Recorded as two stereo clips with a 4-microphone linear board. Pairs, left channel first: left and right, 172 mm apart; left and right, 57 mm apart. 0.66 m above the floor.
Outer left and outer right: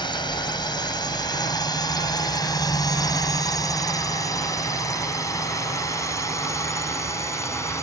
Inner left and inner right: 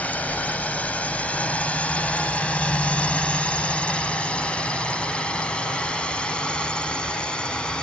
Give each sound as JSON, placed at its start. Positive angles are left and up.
{"t": 0.0, "sound": "a drone", "side_deg": 25}